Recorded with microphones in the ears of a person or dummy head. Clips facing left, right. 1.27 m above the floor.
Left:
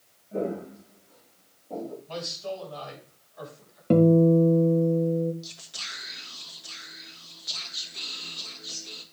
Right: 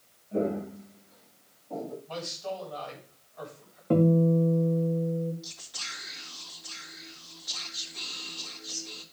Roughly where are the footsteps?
Centre.